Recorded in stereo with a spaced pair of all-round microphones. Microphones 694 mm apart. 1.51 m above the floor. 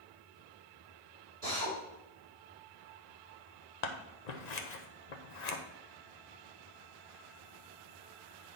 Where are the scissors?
70° left (ahead or behind), 0.9 m.